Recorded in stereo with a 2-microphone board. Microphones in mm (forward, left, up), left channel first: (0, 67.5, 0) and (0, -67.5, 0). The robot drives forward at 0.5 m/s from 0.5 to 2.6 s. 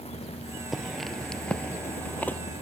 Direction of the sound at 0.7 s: Centre (ahead or behind).